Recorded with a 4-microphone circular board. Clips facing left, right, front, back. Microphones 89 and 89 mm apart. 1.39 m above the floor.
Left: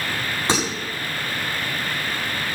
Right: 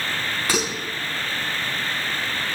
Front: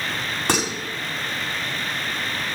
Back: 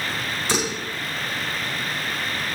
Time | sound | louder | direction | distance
0.5 | dishes clattering | left 2 dB, front 2 dB | 25° left | 8 m